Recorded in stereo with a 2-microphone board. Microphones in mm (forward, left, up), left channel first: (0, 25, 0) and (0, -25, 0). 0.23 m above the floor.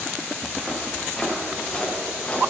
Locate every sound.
0.4 s footsteps: 15° right (ahead or behind), 3 m; by 2.4 s 25° left (ahead or behind), 4 m